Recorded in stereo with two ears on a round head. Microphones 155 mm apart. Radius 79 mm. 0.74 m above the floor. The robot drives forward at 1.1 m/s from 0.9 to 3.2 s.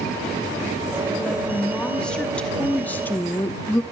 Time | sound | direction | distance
1.2 | a woman speaking | 5° left (ahead or behind) | 3 m